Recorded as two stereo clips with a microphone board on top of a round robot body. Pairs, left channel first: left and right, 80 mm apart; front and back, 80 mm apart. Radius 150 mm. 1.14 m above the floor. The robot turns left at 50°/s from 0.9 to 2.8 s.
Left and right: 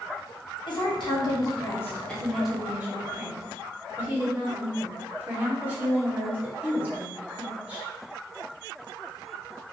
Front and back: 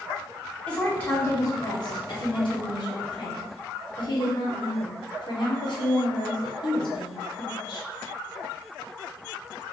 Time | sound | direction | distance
0.7 | a woman speaking | 75° left | 1.3 m